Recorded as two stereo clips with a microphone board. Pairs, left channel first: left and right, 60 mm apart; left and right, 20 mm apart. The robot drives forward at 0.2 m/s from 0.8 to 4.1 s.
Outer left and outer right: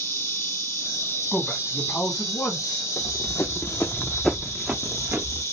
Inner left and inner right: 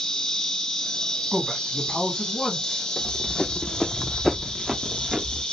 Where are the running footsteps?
75° left (ahead or behind), 0.8 m; by 5.4 s 35° right (ahead or behind), 1.0 m.